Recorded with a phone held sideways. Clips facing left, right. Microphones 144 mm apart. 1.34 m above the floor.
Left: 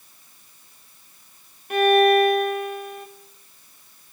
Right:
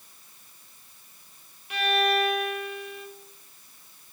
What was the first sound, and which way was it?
A violin, 50° left (ahead or behind).